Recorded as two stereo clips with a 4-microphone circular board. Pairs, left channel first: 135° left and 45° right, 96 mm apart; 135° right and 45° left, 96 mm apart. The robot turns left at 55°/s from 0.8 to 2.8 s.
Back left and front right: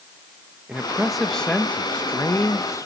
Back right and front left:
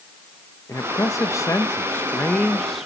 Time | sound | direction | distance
0.7 | a man speaking | 115° right | 1.1 m